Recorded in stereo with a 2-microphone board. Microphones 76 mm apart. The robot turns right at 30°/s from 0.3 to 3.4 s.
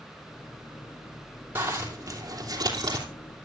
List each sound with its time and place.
1.6 s a zipper: 150° right, 3 m; by 3.0 s 105° right, 3 m